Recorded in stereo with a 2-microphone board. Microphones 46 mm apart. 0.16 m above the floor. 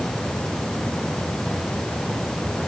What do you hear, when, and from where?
Only background noise.